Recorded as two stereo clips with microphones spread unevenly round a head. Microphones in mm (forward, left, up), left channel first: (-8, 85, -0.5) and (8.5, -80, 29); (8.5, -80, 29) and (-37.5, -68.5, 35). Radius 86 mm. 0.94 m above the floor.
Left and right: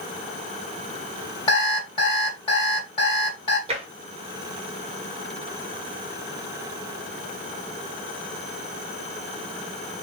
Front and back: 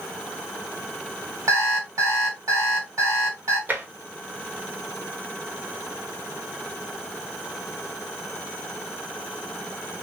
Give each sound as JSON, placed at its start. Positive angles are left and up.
{"t": 1.5, "sound": "an alarm clock", "azimuth_deg": 165, "distance_m": 1.9}
{"t": 3.7, "sound": "tapping", "azimuth_deg": -145, "distance_m": 1.0}